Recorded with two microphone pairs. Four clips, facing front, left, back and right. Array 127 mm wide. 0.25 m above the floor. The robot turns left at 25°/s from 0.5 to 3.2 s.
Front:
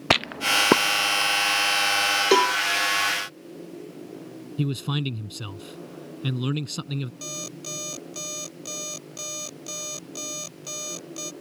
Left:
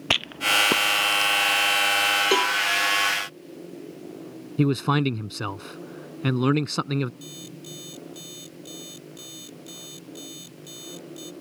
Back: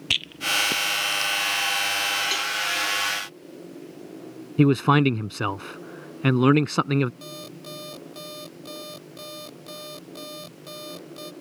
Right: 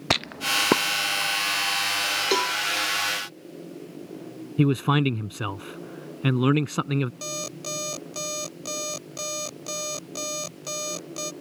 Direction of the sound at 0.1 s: 15° right.